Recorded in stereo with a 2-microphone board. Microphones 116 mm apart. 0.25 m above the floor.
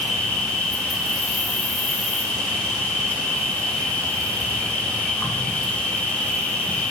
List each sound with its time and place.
0.0 s an insect: 15° left (ahead or behind), 1.1 m